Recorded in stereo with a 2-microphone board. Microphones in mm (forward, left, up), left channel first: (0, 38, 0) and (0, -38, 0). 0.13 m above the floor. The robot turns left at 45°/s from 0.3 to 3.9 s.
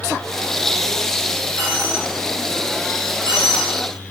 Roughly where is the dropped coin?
Centre.